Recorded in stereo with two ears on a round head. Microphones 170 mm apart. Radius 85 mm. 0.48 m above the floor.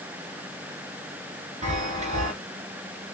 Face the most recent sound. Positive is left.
turn(degrees=-35)  # may be behind; listen again after turning